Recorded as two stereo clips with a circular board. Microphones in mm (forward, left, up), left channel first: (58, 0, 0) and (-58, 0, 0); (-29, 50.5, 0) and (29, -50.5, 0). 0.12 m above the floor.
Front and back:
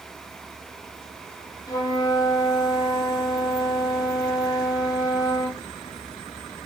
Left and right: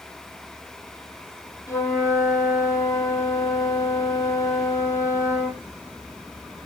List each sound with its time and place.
1.7 s a flute: 55° left, 2 m